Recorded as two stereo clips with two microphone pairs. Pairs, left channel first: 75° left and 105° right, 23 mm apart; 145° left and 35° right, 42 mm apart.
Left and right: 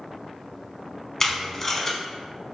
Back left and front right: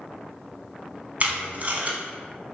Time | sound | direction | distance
1.2 | tape being pulled | 5° left | 0.7 m